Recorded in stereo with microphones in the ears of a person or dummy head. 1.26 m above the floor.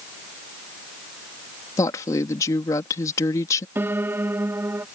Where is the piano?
10° right (ahead or behind).